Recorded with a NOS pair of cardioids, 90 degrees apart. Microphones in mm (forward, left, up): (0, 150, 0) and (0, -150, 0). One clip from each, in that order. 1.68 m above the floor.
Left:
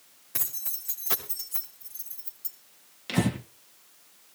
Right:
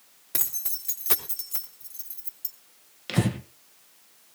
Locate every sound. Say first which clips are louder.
0.3 s keys jangling: right 3 dB; 50° right, 3 m; by 2.5 s 35° right, 4.5 m
3.1 s breathing: even; 15° right, 1.8 m